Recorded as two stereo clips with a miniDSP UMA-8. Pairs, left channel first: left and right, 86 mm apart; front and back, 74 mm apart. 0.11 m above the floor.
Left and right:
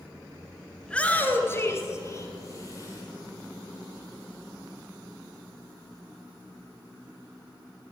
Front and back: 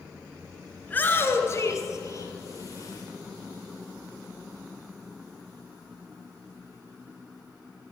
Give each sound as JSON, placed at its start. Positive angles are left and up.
{"t": 0.8, "sound": "a shout", "azimuth_deg": 25, "distance_m": 1.2}